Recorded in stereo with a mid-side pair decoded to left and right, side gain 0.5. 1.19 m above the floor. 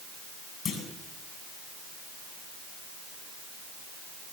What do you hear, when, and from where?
0.7 s a clunk: 40° left, 7.5 m